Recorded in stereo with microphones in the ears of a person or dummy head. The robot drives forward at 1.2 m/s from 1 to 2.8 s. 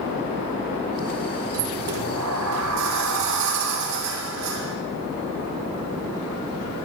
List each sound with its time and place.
1.5 s a sliding door: 75° right (ahead or behind), 5.5 m; by 4.8 s 85° right, 5 m